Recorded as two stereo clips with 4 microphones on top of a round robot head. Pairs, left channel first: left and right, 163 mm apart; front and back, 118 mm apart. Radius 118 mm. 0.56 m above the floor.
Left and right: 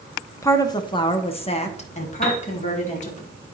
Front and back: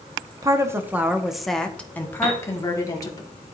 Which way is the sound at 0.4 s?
150° left.